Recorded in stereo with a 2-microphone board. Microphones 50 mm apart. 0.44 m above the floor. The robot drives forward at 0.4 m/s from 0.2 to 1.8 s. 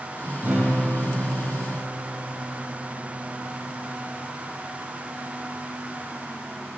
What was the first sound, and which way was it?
A guitar, 30° right (ahead or behind).